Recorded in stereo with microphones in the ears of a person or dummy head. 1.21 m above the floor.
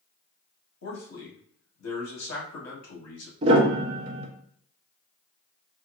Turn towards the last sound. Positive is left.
turn(degrees=-35)  # may be behind; listen again after turning